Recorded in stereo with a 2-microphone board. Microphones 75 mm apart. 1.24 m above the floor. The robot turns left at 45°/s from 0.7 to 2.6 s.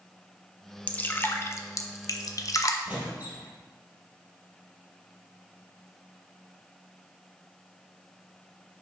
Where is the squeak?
20° right (ahead or behind), 2.5 m.